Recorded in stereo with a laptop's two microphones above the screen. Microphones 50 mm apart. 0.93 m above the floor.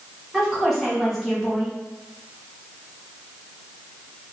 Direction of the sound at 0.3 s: 5° left (ahead or behind).